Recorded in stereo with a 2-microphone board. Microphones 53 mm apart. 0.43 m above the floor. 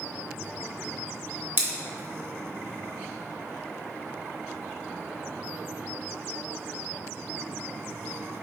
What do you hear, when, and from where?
1.6 s scissors: 40° right (ahead or behind), 1.0 m